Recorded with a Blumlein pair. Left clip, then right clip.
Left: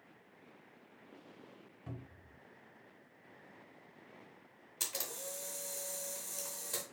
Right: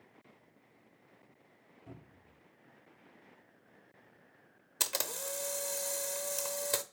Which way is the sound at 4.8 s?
60° right.